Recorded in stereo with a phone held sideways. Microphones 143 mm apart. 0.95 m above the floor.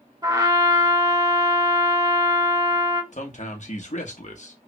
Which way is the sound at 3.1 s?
55° left (ahead or behind).